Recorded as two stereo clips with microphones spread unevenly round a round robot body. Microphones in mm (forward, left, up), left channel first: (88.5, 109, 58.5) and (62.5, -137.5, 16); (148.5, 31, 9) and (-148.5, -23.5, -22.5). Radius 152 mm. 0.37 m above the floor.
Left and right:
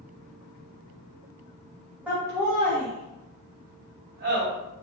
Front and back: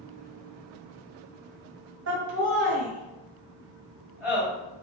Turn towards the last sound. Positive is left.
turn(degrees=-85)